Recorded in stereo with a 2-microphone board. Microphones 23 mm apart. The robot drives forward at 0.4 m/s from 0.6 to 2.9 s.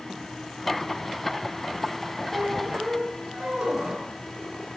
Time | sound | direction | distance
2.3 | a squeak | 65° right (ahead or behind) | 3.5 m
3.6 | a cowbell | 55° right (ahead or behind) | 2.5 m